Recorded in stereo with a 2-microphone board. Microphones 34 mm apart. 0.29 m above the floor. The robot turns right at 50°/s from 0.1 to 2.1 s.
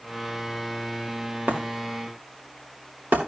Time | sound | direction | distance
1.5 | breaking glass | 55° right (ahead or behind) | 4 m